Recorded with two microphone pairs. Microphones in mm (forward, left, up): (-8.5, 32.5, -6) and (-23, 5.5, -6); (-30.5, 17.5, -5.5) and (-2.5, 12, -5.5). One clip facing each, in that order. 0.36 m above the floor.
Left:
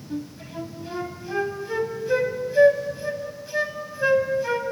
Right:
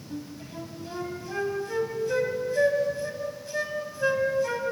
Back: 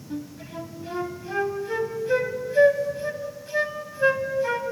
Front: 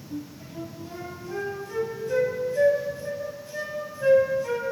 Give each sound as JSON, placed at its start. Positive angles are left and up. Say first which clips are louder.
{"t": 0.1, "sound": "a flute", "louder": "left 5 dB, back 3 dB", "azimuth_deg": 130, "distance_m": 1.8}